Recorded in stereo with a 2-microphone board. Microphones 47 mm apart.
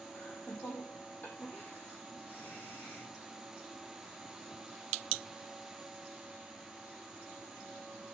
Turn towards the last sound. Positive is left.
turn(degrees=35)  # may be behind; listen again after turning